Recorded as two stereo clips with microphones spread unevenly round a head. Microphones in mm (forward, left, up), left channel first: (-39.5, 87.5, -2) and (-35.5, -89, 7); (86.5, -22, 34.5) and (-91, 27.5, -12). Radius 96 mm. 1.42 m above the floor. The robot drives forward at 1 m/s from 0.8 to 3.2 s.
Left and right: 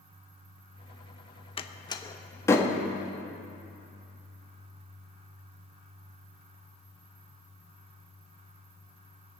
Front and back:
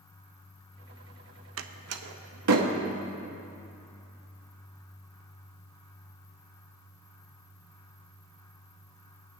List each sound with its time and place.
1.6 s a door slam: 150° left, 0.8 m; by 2.7 s 170° left, 1.8 m